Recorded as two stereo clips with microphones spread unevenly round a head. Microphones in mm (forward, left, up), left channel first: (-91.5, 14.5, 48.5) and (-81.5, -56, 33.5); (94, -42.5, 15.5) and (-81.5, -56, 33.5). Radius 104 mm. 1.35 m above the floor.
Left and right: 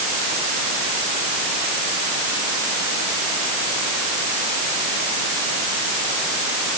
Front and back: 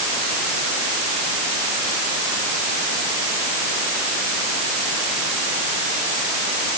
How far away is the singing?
No singing in this recording.